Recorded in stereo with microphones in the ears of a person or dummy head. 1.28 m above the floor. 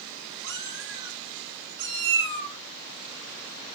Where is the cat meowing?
55° right (ahead or behind), 2.5 m.